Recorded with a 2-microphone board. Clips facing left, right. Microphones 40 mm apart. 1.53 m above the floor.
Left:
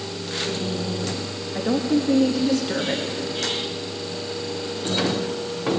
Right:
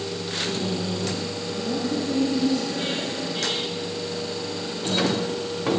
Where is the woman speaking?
75° left (ahead or behind), 2 m.